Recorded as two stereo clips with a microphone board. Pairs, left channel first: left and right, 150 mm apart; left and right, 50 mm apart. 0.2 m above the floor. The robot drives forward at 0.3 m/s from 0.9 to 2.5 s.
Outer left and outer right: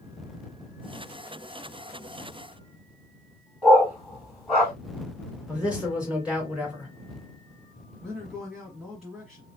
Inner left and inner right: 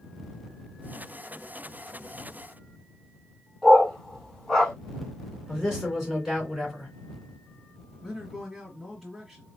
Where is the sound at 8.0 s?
Centre (ahead or behind), 1.3 m.